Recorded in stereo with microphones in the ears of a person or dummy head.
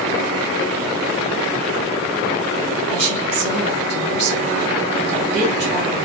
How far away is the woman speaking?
About 1.6 m.